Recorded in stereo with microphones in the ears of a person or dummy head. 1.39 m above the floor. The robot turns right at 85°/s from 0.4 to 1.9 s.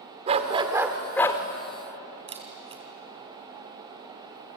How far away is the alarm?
I don't hear an alarm.